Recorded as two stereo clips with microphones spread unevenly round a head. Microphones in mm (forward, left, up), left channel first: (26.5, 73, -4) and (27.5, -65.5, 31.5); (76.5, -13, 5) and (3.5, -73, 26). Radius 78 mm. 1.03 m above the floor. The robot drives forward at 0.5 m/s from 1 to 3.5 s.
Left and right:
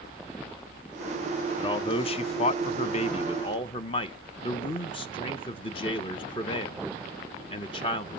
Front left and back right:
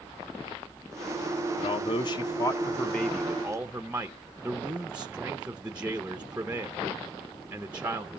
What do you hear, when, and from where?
1.6 s a man speaking: 40° left, 0.7 m; by 8.2 s 135° left, 0.7 m